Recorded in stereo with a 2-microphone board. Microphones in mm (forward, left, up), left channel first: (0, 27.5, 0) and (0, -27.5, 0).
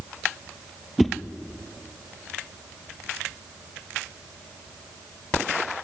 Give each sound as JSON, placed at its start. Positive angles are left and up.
{"t": 1.0, "sound": "a whoosh", "side_deg": 0, "distance_m": 1.4}